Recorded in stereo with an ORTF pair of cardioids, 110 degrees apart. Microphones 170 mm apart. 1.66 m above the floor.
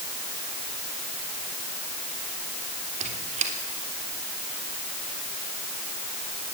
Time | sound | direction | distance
3.0 | a squeak | 45° right | 3.5 m